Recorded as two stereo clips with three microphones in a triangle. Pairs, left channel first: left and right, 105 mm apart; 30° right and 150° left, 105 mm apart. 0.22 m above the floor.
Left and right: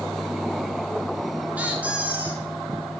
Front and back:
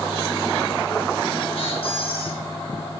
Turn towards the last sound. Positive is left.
turn(degrees=-15)